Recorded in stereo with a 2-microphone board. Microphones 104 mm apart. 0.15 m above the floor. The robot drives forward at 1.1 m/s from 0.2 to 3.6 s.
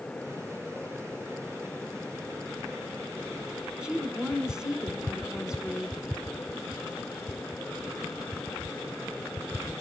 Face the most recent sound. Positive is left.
turn(degrees=-10)  # may be behind; listen again after turning